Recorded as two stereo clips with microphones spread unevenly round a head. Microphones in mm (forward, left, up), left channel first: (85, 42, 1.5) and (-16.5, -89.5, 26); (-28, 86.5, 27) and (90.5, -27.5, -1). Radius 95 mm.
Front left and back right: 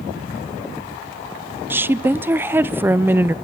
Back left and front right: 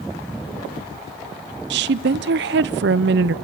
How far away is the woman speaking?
About 0.5 m.